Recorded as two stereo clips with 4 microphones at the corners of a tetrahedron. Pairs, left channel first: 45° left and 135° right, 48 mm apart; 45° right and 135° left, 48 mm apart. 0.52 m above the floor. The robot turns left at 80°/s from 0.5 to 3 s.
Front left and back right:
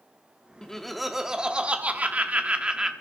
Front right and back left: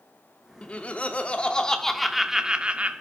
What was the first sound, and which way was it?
Laughter, 15° right.